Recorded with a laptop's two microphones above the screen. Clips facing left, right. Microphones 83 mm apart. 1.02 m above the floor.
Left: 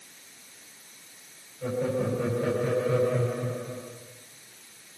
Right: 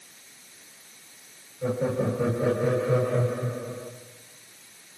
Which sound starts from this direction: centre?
Laughter, at 1.6 s.